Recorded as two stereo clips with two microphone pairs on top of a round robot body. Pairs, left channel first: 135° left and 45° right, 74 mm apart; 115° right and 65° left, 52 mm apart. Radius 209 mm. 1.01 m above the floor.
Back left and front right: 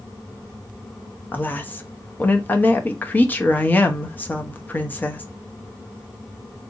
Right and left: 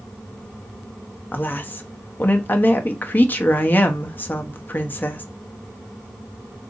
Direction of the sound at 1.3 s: 165° right.